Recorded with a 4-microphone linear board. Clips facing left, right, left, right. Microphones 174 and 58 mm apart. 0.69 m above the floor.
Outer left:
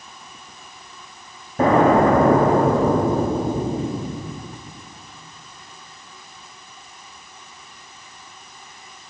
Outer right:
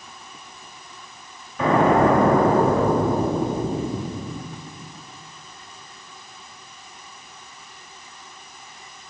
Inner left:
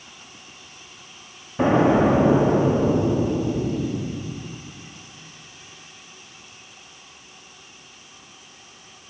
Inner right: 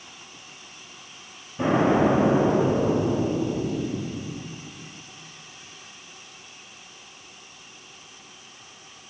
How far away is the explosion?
About 1.1 m.